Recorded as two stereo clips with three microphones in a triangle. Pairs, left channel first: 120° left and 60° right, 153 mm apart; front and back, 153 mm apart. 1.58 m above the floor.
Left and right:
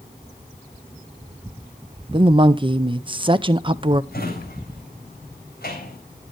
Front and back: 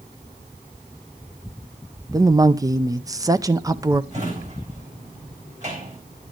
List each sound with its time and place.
2.1 s a woman speaking: 115° right, 0.5 m
4.1 s a drawer: 140° left, 4 m